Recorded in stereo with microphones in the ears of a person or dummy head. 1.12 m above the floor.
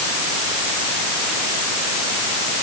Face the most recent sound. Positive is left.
No sound to turn to.